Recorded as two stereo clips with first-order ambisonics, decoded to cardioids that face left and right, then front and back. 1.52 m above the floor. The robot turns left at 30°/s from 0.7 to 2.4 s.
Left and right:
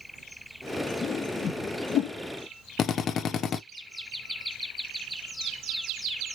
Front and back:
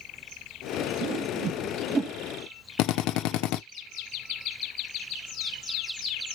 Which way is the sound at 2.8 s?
30° left.